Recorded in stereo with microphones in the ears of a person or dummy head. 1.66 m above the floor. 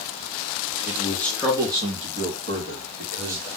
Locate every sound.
0.9 s a man speaking: 30° left (ahead or behind), 0.6 m; by 3.5 s 70° right (ahead or behind), 1.4 m